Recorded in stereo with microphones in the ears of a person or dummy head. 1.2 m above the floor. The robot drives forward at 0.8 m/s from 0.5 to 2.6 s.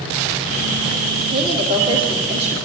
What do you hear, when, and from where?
1.3 s a woman speaking: 25° right (ahead or behind), 3 m; by 2.5 s 35° right (ahead or behind), 2 m